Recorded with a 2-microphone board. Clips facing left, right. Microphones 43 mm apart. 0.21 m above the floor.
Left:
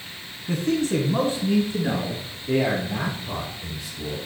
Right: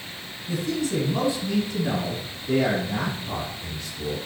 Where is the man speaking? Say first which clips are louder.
Left 3 dB; 50° left (ahead or behind), 1.8 m; by 4.2 s 15° left (ahead or behind), 6.5 m.